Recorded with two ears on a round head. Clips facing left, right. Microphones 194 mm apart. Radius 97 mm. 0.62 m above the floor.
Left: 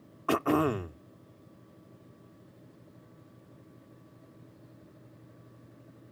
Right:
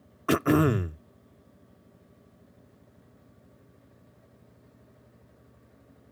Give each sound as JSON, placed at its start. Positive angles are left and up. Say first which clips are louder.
{"t": 0.3, "sound": "throat clearing", "louder": "right 4 dB", "side_deg": -25}